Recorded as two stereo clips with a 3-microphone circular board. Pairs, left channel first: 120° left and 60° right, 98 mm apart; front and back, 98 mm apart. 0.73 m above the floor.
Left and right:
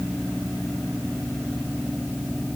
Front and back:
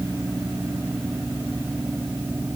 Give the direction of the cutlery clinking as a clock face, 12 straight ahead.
No cutlery clinking in this recording.